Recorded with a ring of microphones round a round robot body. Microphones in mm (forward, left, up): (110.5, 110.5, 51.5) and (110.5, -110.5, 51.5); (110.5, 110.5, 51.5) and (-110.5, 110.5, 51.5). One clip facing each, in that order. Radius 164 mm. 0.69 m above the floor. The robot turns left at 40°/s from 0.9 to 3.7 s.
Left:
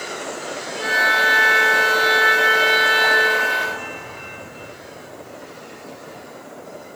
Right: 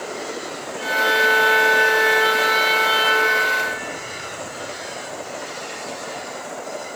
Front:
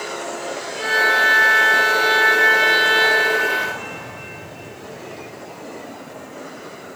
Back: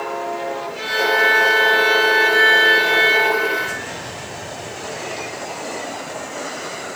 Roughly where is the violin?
Left.